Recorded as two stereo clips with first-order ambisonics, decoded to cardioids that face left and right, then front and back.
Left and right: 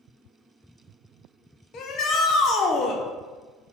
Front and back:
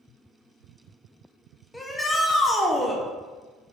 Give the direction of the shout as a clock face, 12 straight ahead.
9 o'clock.